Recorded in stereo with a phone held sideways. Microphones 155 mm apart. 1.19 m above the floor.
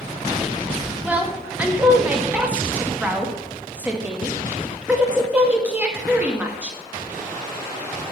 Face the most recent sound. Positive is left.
turn(degrees=-10)  # may be behind; listen again after turning